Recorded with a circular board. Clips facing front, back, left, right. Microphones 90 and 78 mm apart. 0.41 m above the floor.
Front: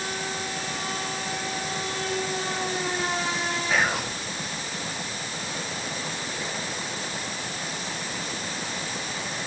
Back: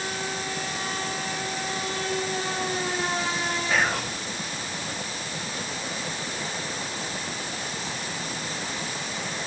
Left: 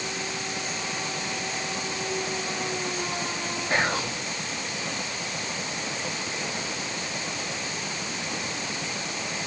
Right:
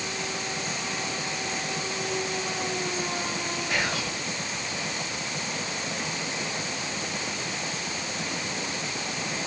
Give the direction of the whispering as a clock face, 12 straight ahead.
9 o'clock.